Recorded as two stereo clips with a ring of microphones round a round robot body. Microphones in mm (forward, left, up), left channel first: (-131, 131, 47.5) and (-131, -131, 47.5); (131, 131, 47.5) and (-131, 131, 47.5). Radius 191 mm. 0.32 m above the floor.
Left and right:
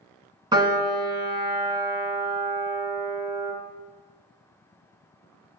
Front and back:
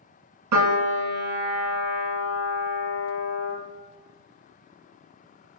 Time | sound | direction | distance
0.5 | a piano | 165° right | 2 m